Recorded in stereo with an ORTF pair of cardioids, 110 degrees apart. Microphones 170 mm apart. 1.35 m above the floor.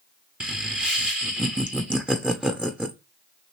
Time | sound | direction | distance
0.4 | laughter | 5° right | 0.6 m